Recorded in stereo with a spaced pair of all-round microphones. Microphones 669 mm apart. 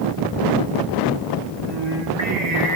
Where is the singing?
75° right (ahead or behind), 3 m.